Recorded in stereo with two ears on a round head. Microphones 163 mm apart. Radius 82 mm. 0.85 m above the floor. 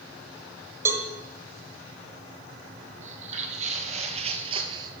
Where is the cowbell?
15° right (ahead or behind), 1.1 m.